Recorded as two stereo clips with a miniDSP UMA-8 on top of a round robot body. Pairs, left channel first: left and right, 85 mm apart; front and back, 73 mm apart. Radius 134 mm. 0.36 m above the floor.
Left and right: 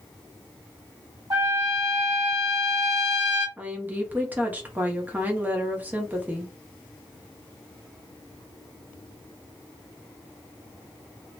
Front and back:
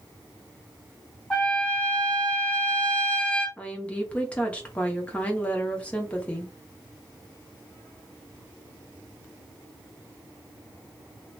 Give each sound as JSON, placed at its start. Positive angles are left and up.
{"t": 1.3, "sound": "a trumpet", "azimuth_deg": -75, "distance_m": 1.8}
{"t": 3.6, "sound": "a woman speaking", "azimuth_deg": -50, "distance_m": 1.0}